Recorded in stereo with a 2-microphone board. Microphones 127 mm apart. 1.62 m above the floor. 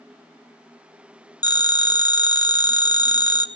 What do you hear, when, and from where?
1.4 s a phone ringing: 30° left (ahead or behind), 0.7 m